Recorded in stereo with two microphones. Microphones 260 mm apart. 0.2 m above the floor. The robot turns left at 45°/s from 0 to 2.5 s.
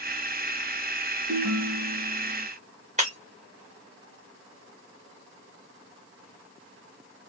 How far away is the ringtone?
About 1.3 m.